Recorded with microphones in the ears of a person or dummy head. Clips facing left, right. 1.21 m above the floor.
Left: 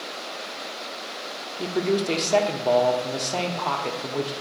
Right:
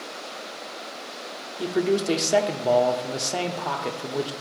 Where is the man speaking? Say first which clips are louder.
Right 1 dB; 10° right (ahead or behind), 0.6 m.